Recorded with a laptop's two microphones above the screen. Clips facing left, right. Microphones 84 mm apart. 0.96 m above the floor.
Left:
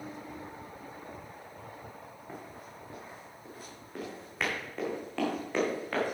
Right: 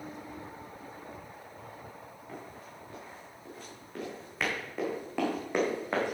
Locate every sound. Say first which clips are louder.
2.3 s running footsteps: even; 20° left (ahead or behind), 5 m; by 6.2 s 25° right (ahead or behind), 3.5 m